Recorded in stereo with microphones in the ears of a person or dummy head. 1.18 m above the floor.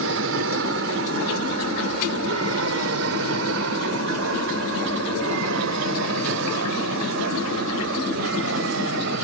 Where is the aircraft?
70° right (ahead or behind); by 9.2 s 60° right (ahead or behind).